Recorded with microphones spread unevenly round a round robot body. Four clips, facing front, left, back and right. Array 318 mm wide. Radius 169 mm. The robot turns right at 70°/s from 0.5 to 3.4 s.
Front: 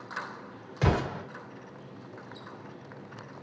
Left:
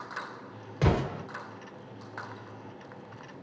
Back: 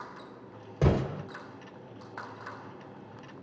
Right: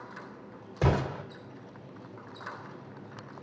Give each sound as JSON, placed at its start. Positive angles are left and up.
{"t": 0.8, "sound": "an explosion", "azimuth_deg": -170, "distance_m": 1.4}